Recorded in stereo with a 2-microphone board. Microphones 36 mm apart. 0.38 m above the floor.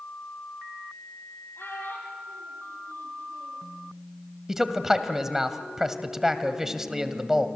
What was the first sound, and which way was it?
A child speaking, 80° left.